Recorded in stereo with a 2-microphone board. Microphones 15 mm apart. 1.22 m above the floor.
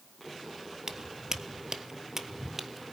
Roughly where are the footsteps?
Right.